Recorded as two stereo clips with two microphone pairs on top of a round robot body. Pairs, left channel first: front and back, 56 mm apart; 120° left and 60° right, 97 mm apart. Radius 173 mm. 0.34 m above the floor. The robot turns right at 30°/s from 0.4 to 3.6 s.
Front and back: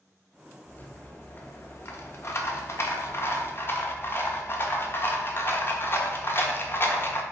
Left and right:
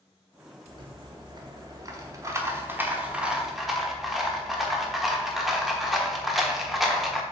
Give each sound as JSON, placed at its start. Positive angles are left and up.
{"t": 0.7, "sound": "a rattle", "azimuth_deg": -55, "distance_m": 1.3}